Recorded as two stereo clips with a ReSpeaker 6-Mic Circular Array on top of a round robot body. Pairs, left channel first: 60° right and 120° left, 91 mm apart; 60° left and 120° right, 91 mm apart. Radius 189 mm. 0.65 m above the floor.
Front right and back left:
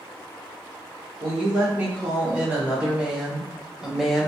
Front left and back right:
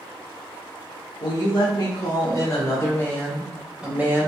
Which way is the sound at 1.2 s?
50° left.